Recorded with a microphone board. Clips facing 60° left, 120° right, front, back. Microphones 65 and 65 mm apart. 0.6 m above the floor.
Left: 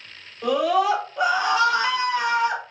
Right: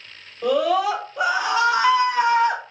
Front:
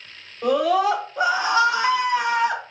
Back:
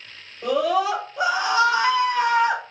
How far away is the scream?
About 1.9 m.